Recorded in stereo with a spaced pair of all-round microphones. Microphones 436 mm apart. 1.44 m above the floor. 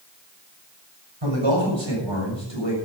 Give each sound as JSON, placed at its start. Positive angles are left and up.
{"t": 1.2, "sound": "a man speaking", "side_deg": -85, "distance_m": 7.0}